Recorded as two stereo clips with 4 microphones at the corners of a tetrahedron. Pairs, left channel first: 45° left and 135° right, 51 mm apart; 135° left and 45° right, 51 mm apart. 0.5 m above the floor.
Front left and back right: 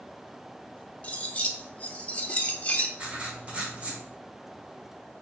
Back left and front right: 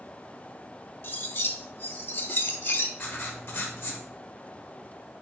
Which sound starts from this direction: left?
Cutlery clinking, at 1.0 s.